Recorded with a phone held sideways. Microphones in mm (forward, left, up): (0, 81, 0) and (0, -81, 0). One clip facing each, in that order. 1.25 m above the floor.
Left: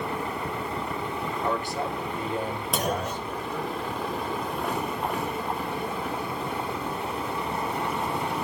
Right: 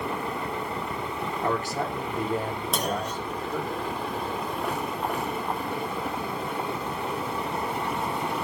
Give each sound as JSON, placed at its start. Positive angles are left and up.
{"t": 1.4, "sound": "a man speaking", "side_deg": -45, "distance_m": 4.5}
{"t": 2.7, "sound": "a clunk", "side_deg": 0, "distance_m": 1.6}